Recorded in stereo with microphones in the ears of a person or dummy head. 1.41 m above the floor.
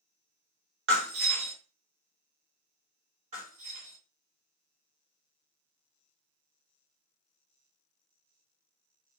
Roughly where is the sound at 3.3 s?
Right.